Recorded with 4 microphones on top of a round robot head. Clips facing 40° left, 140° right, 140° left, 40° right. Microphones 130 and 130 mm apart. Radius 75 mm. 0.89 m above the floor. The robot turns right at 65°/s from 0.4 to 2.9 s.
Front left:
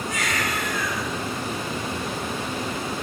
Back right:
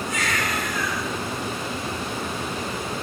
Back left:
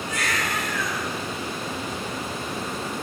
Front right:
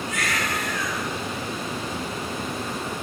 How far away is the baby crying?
About 8 m.